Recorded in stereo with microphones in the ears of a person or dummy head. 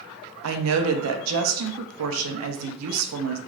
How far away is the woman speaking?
About 0.5 m.